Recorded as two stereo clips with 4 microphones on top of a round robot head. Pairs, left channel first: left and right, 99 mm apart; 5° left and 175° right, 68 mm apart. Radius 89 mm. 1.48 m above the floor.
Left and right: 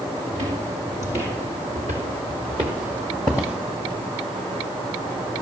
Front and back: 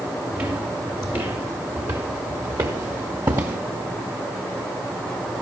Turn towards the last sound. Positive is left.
turn(degrees=-165)